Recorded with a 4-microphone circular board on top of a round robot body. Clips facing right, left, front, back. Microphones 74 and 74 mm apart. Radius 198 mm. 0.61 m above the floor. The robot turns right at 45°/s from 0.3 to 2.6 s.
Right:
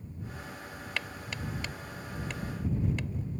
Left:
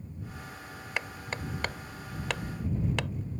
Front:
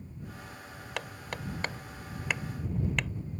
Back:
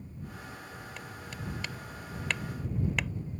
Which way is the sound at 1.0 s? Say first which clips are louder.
Left 3 dB, front 9 dB; 20° left.